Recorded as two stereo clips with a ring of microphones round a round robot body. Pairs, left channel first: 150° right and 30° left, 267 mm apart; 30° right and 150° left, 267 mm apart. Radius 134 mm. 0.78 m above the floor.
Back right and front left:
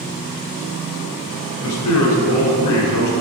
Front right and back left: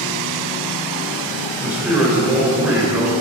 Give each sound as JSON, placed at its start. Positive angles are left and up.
{"t": 1.6, "sound": "a man speaking", "azimuth_deg": -130, "distance_m": 2.5}